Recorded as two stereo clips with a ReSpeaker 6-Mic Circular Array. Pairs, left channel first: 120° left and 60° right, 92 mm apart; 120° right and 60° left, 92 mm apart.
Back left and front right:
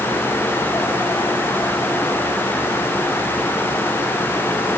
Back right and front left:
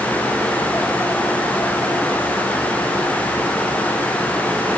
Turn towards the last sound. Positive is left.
No sound to turn to.